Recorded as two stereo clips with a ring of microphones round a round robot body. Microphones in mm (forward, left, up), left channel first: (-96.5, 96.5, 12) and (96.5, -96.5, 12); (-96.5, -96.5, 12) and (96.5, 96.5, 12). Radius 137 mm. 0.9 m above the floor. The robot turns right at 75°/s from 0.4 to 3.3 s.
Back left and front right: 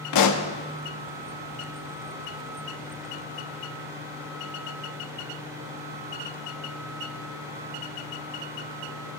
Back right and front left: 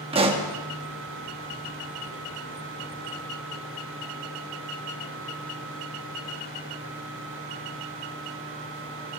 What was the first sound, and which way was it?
A pop, 115° left.